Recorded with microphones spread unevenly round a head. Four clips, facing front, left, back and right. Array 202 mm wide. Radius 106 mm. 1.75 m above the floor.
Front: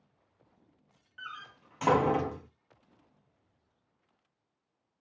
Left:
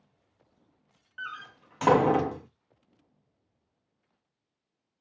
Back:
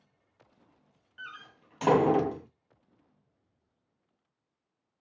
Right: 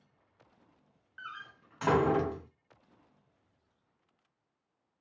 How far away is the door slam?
About 0.5 m.